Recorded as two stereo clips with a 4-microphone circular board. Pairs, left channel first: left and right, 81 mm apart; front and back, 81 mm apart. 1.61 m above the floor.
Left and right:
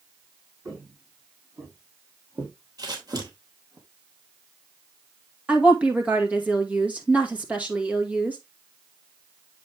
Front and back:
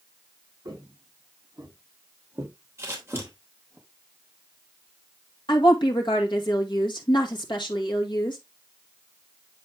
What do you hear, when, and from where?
0.7 s footsteps: 135° right, 4.5 m; by 3.8 s 110° right, 3 m
2.8 s scissors: 125° right, 3 m
5.5 s a woman speaking: 15° right, 2 m